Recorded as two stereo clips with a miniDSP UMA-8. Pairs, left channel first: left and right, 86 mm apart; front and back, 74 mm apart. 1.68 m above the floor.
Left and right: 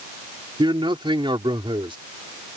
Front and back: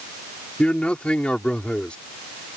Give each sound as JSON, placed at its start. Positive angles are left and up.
{"t": 0.6, "sound": "a man speaking", "azimuth_deg": -75}